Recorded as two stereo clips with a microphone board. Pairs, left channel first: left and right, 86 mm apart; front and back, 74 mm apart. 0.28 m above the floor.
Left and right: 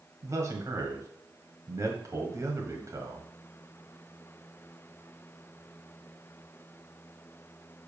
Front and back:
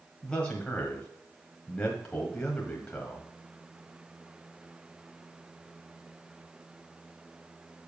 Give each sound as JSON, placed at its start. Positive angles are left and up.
{"t": 0.2, "sound": "a man speaking", "azimuth_deg": -70, "distance_m": 1.6}